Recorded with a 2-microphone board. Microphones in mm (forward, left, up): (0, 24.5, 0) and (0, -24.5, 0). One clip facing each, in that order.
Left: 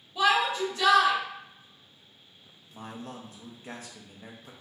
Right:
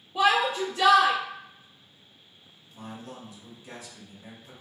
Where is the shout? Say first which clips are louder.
Right 1 dB; 70° right (ahead or behind), 1.0 m.